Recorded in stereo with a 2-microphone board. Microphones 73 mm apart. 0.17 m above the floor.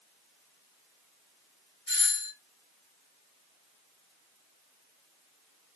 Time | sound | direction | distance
1.9 | a doorbell | 20° left (ahead or behind) | 1.6 m